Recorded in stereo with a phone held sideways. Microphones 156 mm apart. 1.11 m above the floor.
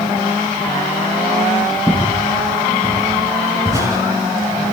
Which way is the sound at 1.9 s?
5° right (ahead or behind).